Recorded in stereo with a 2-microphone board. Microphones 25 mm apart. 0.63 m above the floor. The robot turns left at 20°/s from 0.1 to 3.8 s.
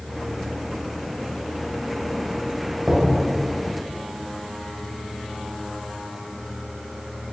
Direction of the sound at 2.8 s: 70° right (ahead or behind).